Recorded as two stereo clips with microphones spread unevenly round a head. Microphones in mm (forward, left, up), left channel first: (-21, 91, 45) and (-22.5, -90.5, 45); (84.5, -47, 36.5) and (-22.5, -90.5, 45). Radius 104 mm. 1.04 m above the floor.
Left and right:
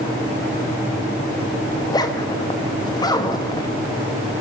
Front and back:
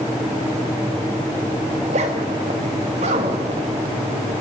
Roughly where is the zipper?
Behind.